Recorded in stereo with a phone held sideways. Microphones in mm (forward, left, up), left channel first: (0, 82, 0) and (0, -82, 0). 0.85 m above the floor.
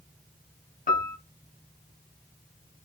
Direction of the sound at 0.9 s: 55° left (ahead or behind).